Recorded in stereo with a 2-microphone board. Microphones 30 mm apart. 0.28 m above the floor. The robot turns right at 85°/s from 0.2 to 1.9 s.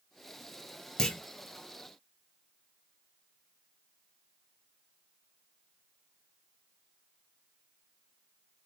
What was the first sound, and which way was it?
A clunk, 25° left (ahead or behind).